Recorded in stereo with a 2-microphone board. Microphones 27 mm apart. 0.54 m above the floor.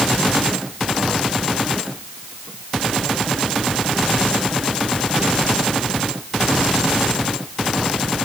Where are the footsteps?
No footsteps in this recording.